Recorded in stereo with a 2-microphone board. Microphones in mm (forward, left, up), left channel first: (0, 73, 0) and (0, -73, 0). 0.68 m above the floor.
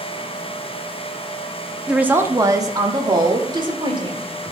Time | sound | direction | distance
1.9 | a woman speaking | 5° right (ahead or behind) | 0.8 m